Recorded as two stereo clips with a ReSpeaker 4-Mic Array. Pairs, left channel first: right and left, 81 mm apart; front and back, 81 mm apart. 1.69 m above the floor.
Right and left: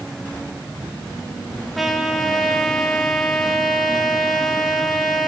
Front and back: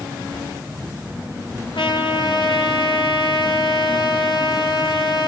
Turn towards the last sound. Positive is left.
turn(degrees=0)